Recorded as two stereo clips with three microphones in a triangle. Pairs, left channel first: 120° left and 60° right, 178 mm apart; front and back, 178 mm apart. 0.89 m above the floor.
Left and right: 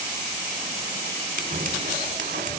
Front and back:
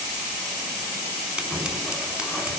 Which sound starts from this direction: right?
Scissors, at 1.4 s.